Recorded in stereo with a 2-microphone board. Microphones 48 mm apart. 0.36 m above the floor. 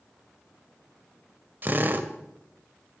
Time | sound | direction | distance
1.6 | a drill | 40° right (ahead or behind) | 0.9 m